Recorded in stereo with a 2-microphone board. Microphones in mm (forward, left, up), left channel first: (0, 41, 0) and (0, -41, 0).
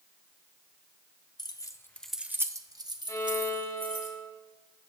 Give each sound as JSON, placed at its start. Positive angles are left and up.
{"t": 1.4, "sound": "keys jangling", "side_deg": 55, "distance_m": 0.9}
{"t": 3.1, "sound": "a violin", "side_deg": 40, "distance_m": 1.2}